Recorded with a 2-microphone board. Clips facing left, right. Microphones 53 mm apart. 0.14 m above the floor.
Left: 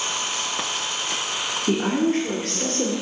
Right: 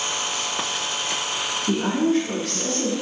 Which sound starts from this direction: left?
A woman speaking, at 1.7 s.